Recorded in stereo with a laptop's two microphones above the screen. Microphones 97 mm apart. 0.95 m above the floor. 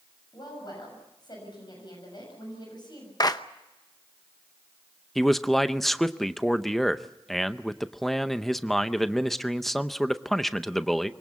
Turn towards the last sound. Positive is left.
turn(degrees=5)  # may be behind; listen again after turning